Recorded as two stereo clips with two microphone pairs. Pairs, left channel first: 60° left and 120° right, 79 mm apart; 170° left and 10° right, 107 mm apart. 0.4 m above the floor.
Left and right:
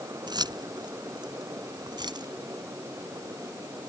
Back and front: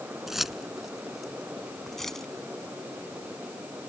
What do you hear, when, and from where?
0.3 s keys jangling: 95° right; by 2.3 s 105° right